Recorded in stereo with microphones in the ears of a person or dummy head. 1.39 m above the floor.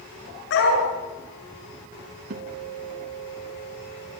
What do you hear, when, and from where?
0.5 s a dog barking: 70° left (ahead or behind), 7.5 m
2.3 s a guitar: 55° right (ahead or behind), 2.5 m